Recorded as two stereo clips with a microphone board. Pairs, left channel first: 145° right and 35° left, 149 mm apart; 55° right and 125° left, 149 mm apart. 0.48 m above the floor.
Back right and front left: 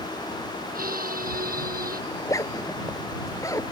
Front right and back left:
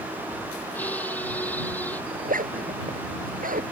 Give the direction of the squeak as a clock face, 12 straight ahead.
11 o'clock.